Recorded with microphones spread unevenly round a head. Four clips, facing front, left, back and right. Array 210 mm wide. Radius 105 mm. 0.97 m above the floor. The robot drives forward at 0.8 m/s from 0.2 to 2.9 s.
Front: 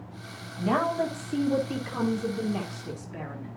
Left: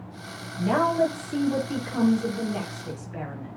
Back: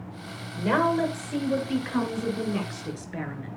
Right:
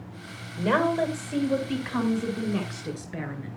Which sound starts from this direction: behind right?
A woman speaking, at 0.6 s.